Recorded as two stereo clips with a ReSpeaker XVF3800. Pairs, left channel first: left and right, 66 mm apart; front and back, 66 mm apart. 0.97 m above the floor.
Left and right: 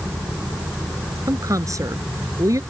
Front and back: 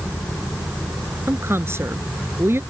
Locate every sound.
1.3 s a woman speaking: 125° right